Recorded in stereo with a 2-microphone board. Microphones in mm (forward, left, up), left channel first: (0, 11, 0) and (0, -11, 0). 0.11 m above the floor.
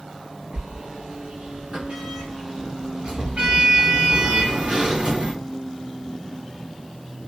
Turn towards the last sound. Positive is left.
turn(degrees=-60)  # may be behind; listen again after turning